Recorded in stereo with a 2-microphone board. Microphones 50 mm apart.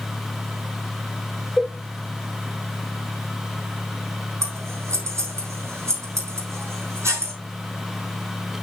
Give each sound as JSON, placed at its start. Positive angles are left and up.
{"t": 1.6, "sound": "a cowbell", "side_deg": 10, "distance_m": 0.8}
{"t": 4.4, "sound": "scissors", "side_deg": -70, "distance_m": 4.5}